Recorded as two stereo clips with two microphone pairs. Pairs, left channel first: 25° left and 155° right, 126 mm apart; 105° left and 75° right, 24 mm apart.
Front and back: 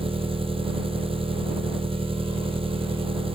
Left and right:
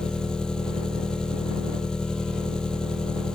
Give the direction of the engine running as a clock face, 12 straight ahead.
7 o'clock.